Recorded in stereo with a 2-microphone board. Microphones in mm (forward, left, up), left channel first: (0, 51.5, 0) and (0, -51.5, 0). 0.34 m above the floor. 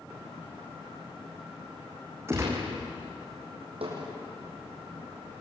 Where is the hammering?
70° right (ahead or behind), 8.5 m.